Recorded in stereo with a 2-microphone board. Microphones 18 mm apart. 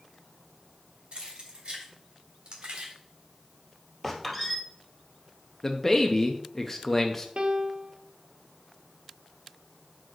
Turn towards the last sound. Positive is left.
turn(degrees=-50)  # may be behind; listen again after turning